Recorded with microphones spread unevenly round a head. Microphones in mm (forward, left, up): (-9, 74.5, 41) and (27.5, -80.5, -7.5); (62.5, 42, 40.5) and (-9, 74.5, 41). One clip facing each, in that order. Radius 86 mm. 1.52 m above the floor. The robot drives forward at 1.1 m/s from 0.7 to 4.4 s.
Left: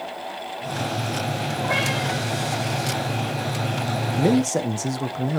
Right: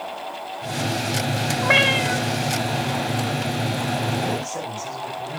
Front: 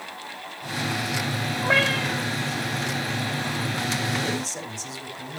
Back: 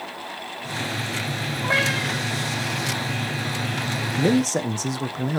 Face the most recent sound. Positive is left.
turn(degrees=125)